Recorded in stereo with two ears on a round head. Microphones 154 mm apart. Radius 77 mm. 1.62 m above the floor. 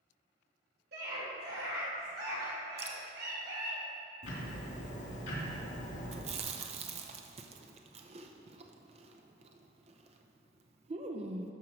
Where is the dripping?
35° right (ahead or behind), 1.1 m.